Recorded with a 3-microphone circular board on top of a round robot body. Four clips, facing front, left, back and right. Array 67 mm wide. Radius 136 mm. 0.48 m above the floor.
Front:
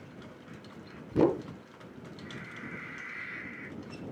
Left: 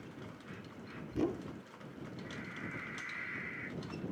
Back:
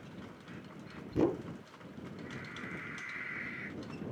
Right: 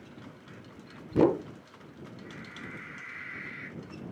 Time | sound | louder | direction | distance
1.1 | a whoosh | right 12 dB, front 5 dB | 65° right | ?